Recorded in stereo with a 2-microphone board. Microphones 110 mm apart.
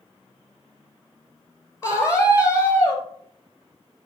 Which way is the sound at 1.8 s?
25° left (ahead or behind).